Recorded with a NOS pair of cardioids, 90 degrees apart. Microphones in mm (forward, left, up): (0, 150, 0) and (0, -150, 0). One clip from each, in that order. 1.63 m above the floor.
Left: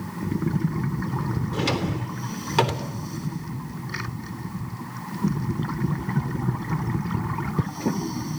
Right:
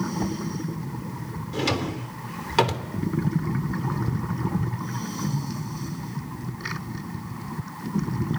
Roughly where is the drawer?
Ahead.